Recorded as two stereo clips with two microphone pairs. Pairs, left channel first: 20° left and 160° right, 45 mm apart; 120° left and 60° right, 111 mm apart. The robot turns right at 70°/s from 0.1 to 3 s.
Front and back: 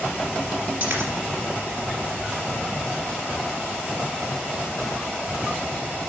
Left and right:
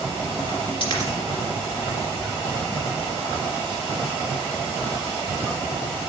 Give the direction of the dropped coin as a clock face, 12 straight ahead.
7 o'clock.